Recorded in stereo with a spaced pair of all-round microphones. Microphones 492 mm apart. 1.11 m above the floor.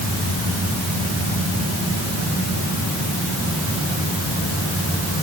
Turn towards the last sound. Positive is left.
No sound to turn to.